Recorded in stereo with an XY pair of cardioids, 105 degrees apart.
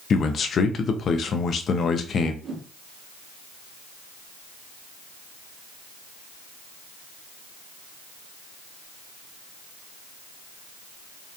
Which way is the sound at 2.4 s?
60° right.